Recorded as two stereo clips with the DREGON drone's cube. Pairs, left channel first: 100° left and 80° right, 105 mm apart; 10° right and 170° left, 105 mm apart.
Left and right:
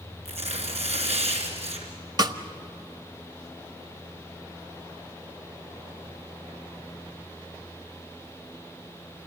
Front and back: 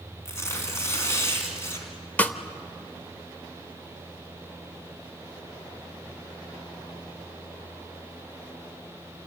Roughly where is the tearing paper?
Right.